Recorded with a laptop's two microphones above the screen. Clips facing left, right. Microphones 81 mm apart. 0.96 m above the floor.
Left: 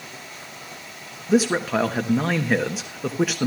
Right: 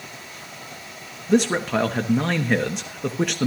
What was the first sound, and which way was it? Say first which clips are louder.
A man speaking: even; 5° left (ahead or behind).